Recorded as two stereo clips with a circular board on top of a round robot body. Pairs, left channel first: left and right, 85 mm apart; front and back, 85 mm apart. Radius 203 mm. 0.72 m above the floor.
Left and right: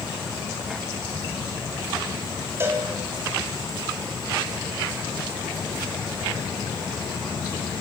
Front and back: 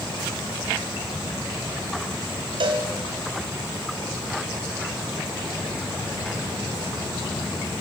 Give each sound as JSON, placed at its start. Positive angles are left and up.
{"t": 2.6, "sound": "a cowbell", "azimuth_deg": -155, "distance_m": 3.5}